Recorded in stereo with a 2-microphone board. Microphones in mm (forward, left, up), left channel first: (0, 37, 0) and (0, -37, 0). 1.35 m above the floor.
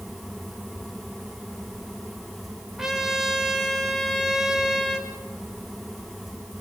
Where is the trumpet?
5° right (ahead or behind), 2.5 m.